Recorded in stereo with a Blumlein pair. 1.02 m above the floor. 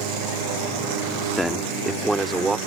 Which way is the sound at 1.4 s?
Straight ahead.